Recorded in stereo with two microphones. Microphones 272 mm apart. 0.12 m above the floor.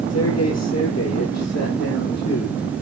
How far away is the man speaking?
About 3.5 m.